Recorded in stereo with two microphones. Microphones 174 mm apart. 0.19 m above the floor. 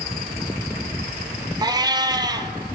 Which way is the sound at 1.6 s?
25° right (ahead or behind).